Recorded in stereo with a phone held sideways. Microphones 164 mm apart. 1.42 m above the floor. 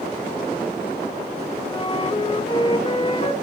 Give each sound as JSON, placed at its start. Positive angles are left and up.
{"t": 1.7, "sound": "a flute", "side_deg": 30, "distance_m": 2.5}